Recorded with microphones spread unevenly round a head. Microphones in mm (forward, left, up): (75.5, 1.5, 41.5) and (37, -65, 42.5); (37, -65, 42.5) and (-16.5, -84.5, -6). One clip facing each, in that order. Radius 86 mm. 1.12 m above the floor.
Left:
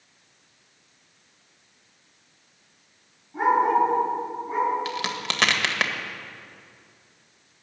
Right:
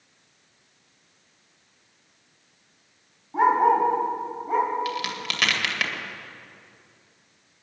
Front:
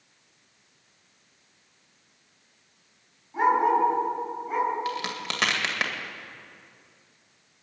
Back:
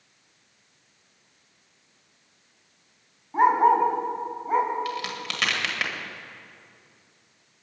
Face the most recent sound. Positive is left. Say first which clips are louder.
# even, even
turn(degrees=5)